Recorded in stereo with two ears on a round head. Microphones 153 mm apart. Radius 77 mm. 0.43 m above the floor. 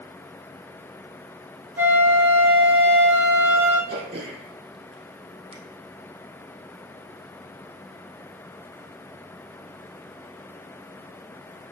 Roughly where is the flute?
Centre.